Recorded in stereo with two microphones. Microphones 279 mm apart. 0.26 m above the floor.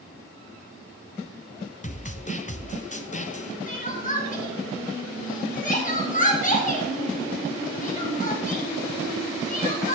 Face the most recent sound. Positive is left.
turn(degrees=30)  # may be behind; listen again after turning